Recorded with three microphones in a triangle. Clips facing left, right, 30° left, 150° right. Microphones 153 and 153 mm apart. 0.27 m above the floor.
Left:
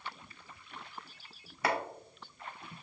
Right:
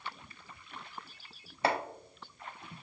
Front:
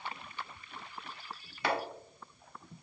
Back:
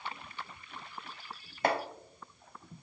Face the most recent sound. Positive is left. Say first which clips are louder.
# right 2 dB, back 3 dB
turn(degrees=-140)